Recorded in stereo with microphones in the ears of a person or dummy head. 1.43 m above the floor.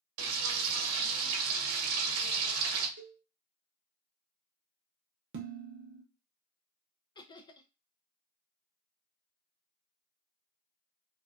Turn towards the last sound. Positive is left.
turn(degrees=30)  # may be behind; listen again after turning